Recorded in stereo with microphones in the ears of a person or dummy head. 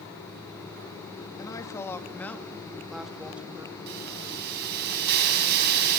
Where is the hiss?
50° right (ahead or behind), 5 m.